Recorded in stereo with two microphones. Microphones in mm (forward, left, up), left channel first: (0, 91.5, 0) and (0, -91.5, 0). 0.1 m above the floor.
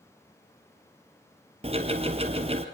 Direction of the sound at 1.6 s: 35° right (ahead or behind).